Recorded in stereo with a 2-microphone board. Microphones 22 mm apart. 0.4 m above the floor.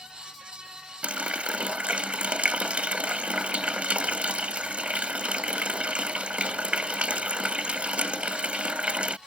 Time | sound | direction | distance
1.0 | a running tap | 65° right (ahead or behind) | ?